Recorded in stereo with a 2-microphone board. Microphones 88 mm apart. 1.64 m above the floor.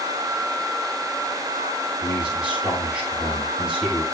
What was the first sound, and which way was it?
A man speaking, 5° right (ahead or behind).